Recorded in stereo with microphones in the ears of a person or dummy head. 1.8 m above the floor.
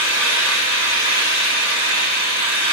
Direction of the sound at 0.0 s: 55° right (ahead or behind).